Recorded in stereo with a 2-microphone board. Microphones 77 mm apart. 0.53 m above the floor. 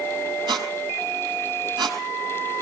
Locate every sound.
0.5 s a squeak: 80° right, 4.5 m